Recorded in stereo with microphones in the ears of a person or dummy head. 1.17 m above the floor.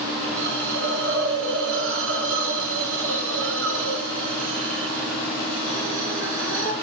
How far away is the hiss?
About 4.5 m.